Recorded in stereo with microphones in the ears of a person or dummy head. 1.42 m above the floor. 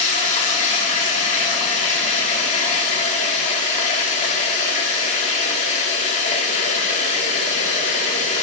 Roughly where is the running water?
Left.